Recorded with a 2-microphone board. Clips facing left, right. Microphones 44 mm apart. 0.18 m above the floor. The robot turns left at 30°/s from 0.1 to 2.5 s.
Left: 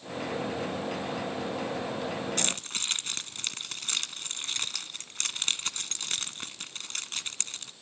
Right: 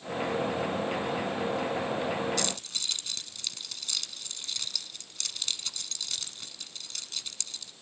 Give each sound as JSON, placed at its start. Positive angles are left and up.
{"t": 2.4, "sound": "keys jangling", "side_deg": 45, "distance_m": 1.2}